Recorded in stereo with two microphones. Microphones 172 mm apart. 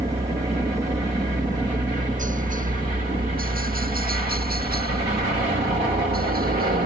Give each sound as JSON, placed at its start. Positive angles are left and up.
{"t": 0.0, "sound": "a helicopter", "side_deg": -35}